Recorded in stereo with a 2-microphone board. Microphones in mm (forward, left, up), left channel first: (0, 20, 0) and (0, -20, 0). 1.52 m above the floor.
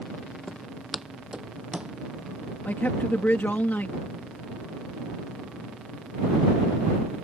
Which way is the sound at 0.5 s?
5° left (ahead or behind).